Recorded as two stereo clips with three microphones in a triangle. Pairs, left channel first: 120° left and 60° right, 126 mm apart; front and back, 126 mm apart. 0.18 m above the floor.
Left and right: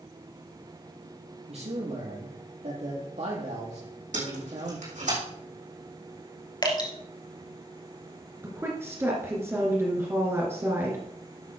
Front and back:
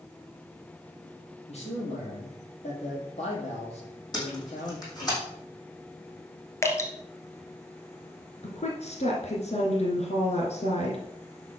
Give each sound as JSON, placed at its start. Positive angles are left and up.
{"t": 1.5, "sound": "a man speaking", "azimuth_deg": -30, "distance_m": 6.5}
{"t": 4.1, "sound": "tape being pulled", "azimuth_deg": -55, "distance_m": 6.5}
{"t": 6.6, "sound": "dripping", "azimuth_deg": 65, "distance_m": 1.9}
{"t": 8.4, "sound": "a woman speaking", "azimuth_deg": 10, "distance_m": 2.5}